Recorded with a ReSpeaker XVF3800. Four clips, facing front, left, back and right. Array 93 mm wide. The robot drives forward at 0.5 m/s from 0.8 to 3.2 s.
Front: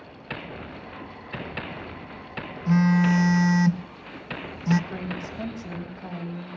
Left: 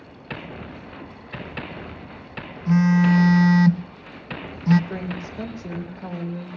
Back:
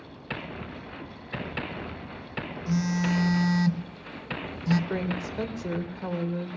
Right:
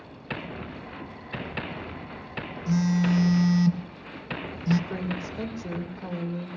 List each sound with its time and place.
2.7 s a phone buzzing: 45° left, 0.6 m; by 4.8 s 70° left, 0.5 m
4.9 s a woman speaking: straight behind, 2.5 m